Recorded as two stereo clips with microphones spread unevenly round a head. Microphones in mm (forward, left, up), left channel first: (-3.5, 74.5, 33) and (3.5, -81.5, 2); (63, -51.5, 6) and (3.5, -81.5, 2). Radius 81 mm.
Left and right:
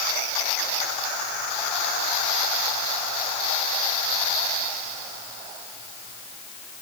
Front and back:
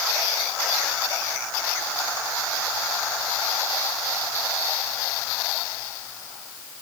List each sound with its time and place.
Only background noise.